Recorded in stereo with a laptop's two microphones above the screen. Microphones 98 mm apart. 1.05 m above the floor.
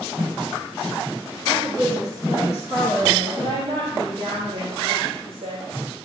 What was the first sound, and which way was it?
A woman speaking, 35° right (ahead or behind).